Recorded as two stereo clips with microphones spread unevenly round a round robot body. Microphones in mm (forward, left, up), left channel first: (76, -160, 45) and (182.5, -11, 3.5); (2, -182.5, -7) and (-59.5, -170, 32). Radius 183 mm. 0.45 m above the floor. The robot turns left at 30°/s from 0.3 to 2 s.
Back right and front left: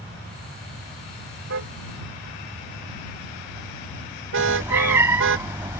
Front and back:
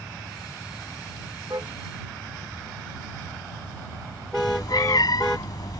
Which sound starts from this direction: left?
A car horn, at 1.5 s.